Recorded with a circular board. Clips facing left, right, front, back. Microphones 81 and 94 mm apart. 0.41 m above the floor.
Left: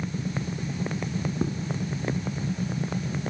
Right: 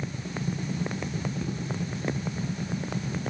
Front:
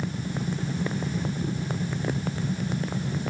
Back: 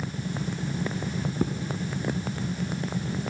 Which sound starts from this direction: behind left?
Footsteps, at 1.4 s.